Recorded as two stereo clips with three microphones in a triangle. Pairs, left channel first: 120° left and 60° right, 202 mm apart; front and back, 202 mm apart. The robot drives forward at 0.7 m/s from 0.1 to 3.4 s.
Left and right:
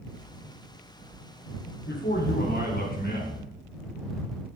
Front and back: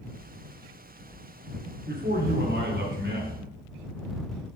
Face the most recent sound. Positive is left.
turn(degrees=160)